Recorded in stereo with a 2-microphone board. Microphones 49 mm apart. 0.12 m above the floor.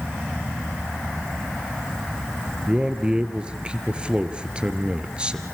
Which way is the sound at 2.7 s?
20° right (ahead or behind).